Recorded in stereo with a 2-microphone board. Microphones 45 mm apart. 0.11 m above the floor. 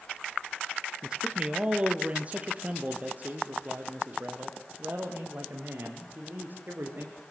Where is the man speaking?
20° right (ahead or behind), 2 m; by 7.2 s 45° right (ahead or behind), 7 m.